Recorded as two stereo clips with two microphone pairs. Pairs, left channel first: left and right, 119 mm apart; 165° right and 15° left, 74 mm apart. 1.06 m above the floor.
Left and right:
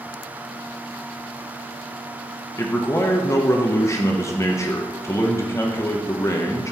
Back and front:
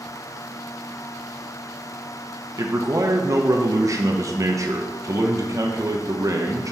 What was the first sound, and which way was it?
A man speaking, 35° left.